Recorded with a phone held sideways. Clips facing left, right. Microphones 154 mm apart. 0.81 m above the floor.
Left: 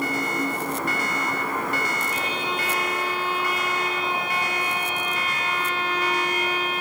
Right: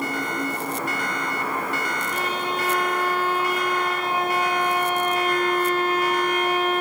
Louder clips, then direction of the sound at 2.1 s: Right 2 dB; 50° right (ahead or behind).